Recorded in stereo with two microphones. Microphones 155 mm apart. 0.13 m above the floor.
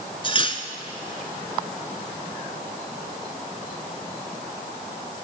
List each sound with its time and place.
0.2 s cutlery clinking: 35° left (ahead or behind), 0.8 m